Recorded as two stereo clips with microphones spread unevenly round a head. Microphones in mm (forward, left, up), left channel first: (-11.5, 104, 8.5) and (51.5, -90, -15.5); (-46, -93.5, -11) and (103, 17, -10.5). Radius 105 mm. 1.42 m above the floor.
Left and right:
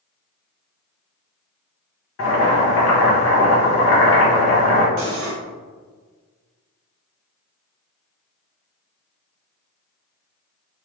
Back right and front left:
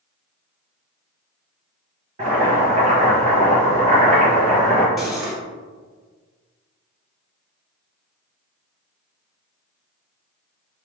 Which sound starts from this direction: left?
Boiling, at 2.2 s.